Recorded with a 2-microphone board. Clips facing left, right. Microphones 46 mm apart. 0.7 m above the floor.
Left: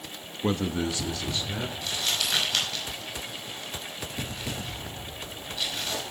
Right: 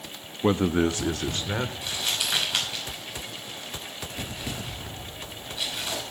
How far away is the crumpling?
About 5.5 m.